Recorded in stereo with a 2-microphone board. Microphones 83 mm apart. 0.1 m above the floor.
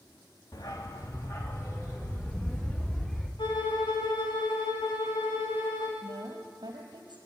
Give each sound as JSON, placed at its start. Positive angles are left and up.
{"t": 0.5, "sound": "a dog barking", "side_deg": 50, "distance_m": 2.5}
{"t": 3.4, "sound": "a violin", "side_deg": 75, "distance_m": 4.0}
{"t": 6.0, "sound": "a woman speaking", "side_deg": -60, "distance_m": 3.0}